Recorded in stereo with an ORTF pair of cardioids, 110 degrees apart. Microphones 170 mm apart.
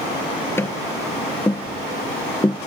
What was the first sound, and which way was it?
Tapping, 15° left.